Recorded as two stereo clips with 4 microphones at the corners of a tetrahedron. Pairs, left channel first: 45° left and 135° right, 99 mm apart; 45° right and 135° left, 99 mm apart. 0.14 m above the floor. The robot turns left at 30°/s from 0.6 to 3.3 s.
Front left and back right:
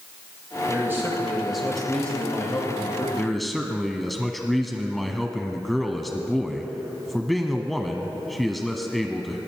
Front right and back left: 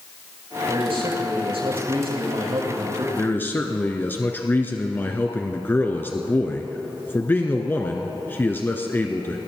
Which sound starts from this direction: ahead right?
A man speaking, at 3.2 s.